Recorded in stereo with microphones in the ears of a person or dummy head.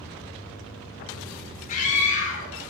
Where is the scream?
50° left (ahead or behind), 0.9 m.